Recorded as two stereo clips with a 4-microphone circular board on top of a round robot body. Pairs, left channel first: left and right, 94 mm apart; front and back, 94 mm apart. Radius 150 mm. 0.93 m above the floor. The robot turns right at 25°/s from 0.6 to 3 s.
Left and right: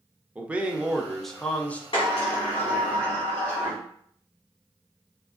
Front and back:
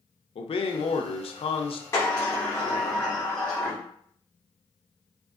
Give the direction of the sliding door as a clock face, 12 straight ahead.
10 o'clock.